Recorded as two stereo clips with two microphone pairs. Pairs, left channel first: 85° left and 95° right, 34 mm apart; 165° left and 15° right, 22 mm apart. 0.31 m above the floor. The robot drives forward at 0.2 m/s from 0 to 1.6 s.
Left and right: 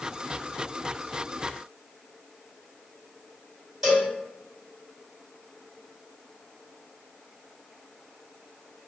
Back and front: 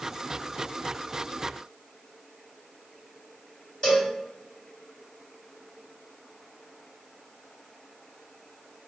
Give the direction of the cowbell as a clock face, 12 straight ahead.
6 o'clock.